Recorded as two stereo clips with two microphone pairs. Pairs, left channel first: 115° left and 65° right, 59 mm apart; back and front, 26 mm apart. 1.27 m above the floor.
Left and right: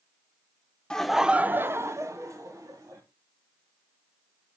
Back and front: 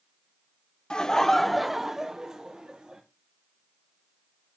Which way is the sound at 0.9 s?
Straight behind.